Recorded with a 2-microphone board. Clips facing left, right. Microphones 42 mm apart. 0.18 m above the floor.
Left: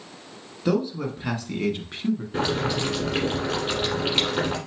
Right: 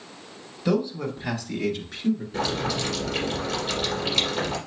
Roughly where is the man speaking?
Centre.